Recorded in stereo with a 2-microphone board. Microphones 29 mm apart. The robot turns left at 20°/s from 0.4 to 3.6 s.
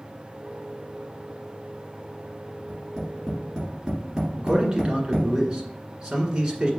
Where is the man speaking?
30° right (ahead or behind), 1.7 m.